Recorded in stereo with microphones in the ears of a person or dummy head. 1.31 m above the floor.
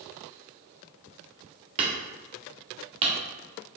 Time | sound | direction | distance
1.8 | hammering | 35° right (ahead or behind) | 1.9 m